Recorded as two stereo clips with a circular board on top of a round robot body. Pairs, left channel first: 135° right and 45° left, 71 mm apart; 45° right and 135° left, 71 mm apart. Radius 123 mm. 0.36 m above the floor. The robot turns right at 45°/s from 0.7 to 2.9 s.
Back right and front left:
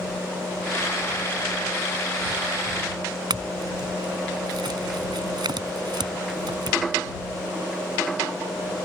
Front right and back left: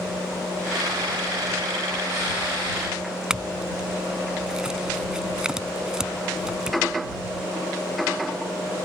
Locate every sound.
3.3 s a clink: 55° left